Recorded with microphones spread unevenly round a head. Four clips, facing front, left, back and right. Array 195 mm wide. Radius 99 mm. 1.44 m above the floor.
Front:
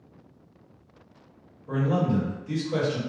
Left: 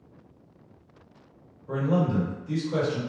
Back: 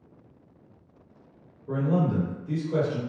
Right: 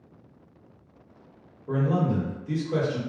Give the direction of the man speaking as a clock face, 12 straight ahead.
4 o'clock.